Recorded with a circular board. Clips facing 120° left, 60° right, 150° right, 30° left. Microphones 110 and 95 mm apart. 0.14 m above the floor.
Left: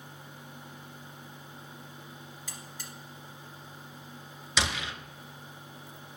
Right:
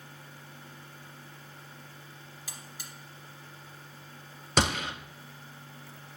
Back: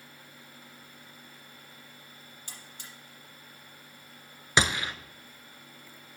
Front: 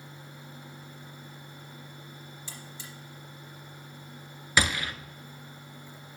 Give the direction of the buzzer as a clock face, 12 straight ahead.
5 o'clock.